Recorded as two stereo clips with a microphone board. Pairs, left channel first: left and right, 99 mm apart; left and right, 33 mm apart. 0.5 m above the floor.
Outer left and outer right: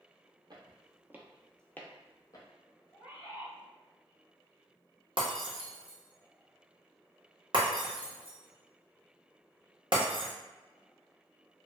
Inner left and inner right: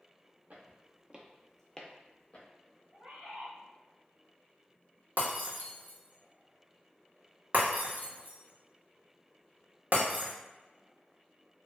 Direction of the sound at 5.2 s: 55° right (ahead or behind).